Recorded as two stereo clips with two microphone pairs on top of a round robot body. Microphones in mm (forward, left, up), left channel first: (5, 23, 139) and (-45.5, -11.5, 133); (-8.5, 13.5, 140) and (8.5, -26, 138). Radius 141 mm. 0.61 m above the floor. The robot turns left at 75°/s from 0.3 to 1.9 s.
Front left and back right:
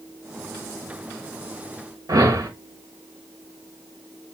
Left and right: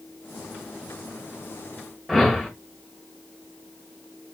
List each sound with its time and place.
2.1 s a whoosh: 150° right, 0.8 m